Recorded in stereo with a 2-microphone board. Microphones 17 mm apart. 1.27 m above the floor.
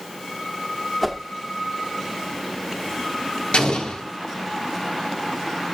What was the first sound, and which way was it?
A whoosh, 5° left (ahead or behind).